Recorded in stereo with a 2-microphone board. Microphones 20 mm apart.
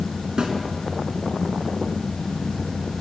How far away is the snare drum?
About 3.5 m.